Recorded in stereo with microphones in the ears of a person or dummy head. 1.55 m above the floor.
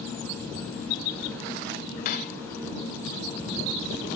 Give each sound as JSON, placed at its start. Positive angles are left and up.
{"t": 2.0, "sound": "cutlery clinking", "side_deg": 50}